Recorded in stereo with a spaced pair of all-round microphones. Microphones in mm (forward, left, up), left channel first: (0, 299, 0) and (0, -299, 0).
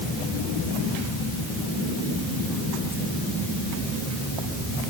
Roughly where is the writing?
No writing in this recording.